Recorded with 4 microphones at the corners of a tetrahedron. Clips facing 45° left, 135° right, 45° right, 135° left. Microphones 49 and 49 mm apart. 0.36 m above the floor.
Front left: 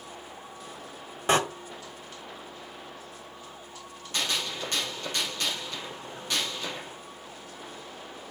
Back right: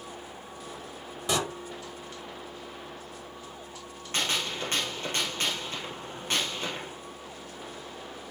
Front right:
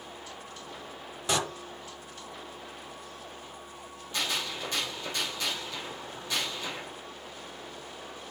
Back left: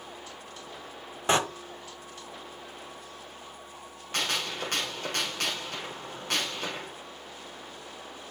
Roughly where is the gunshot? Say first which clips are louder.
Back right 1 dB, back left 2 dB; behind.